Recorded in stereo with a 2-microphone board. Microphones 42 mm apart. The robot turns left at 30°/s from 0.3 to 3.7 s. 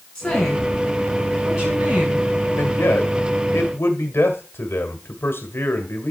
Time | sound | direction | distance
0.1 | a woman speaking | 15° left | 6 m
2.6 | a man speaking | 110° left | 1.9 m